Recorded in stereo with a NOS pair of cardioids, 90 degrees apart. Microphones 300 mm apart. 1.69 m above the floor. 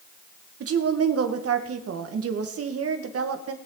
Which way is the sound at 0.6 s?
50° right.